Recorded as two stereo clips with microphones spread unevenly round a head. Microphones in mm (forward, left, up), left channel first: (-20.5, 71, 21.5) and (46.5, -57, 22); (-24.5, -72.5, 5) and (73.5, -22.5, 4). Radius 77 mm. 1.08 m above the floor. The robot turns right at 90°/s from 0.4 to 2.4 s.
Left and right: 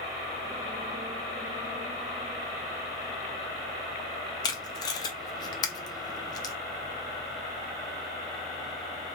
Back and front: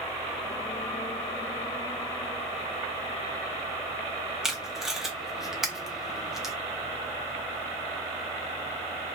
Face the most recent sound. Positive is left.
turn(degrees=110)